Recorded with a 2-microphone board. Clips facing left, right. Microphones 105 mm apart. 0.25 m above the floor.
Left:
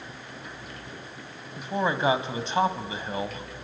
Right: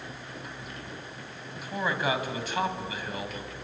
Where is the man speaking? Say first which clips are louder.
Left 4 dB; 30° left (ahead or behind), 1.8 m.